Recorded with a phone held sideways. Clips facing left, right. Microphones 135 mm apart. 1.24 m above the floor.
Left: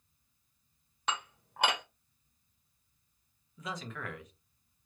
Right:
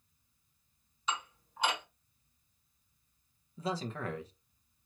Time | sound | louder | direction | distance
1.1 | dishes clattering | left 1 dB | 65° left (ahead or behind) | 1.1 m
3.6 | a man speaking | right 5 dB | 30° right (ahead or behind) | 0.8 m